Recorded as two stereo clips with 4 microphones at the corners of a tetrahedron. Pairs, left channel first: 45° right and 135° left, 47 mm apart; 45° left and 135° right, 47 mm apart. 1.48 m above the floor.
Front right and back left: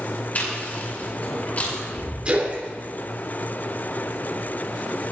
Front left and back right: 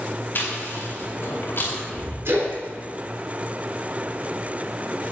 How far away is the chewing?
About 5 m.